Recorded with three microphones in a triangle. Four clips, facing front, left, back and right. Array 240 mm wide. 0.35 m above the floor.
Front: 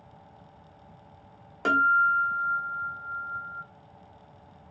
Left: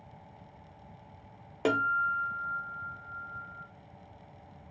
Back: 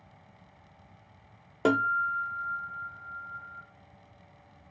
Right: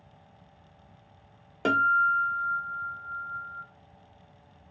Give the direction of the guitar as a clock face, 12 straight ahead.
6 o'clock.